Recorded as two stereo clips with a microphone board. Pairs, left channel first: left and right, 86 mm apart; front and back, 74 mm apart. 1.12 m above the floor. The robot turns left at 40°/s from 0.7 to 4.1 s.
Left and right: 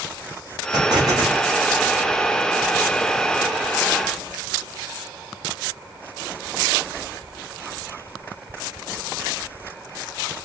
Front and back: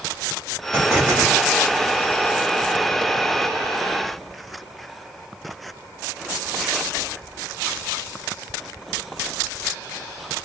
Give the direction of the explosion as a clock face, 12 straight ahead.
4 o'clock.